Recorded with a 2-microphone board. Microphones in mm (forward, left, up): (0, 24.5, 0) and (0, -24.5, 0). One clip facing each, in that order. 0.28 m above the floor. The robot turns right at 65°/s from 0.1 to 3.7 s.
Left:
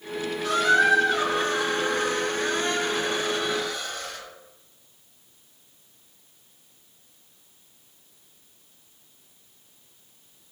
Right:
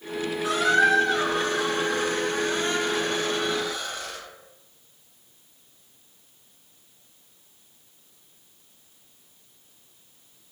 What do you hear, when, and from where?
0.4 s a squeak: 25° right, 0.9 m; by 4.2 s 175° right, 0.9 m